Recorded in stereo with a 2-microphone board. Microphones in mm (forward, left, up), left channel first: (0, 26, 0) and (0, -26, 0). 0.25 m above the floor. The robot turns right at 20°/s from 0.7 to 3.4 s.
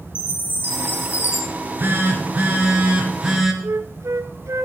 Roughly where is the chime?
Left.